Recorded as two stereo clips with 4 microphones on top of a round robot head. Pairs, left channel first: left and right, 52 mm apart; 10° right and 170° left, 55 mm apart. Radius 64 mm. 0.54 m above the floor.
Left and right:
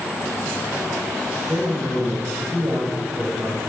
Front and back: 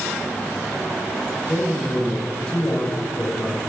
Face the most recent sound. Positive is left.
turn(degrees=-85)